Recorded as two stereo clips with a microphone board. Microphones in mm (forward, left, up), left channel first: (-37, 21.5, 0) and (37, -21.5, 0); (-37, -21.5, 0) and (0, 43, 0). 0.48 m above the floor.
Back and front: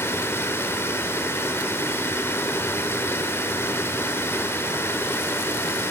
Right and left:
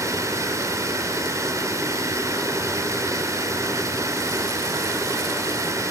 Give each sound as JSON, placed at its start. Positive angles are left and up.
{"t": 0.0, "sound": "running water", "azimuth_deg": 95, "distance_m": 1.2}